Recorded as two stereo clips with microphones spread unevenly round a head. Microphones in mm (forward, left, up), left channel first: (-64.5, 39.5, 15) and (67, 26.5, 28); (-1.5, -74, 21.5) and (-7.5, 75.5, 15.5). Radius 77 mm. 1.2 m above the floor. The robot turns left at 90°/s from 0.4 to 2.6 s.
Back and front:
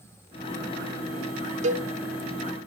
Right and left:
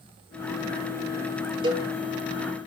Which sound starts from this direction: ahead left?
A cowbell, at 1.6 s.